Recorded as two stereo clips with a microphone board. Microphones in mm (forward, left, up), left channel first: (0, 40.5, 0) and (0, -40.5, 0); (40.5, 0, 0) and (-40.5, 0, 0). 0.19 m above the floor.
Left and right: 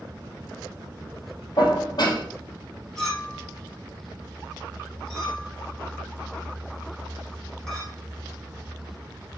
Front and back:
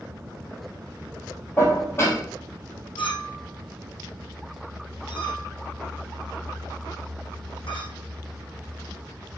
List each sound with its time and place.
1.6 s dishes clattering: 60° left, 4 m
3.0 s a clink: 5° left, 5.5 m